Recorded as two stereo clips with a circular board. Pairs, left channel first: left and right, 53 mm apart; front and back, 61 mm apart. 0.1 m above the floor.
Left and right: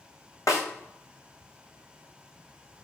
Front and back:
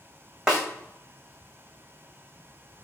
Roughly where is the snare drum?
Left.